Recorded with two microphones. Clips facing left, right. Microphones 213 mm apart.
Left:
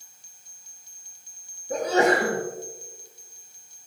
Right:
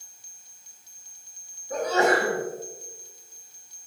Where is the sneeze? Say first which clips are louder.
Left 1 dB; 30° left (ahead or behind), 3.5 m.